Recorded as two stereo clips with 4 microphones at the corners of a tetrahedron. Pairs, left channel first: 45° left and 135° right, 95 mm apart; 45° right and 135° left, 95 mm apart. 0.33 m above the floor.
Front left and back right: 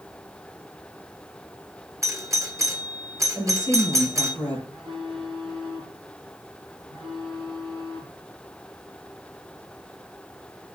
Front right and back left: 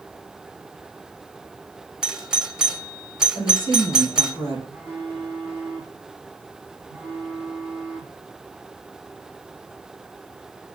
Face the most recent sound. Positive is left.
turn(degrees=-120)